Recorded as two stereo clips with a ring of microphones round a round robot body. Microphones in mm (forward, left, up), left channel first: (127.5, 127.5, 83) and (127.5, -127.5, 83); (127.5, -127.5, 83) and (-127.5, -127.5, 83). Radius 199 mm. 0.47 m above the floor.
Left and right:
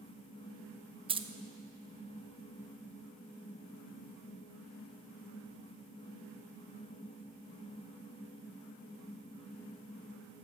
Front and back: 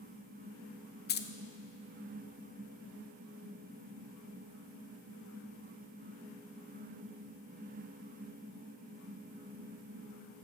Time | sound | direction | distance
1.1 | keys jangling | 25° right | 0.5 m